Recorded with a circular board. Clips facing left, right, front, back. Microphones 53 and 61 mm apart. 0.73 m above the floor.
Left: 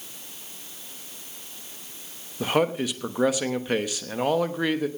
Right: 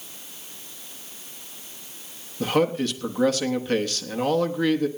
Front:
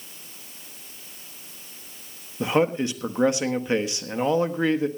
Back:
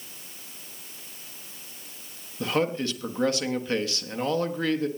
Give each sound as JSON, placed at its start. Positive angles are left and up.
{"t": 2.4, "sound": "a man speaking", "azimuth_deg": 30, "distance_m": 1.1}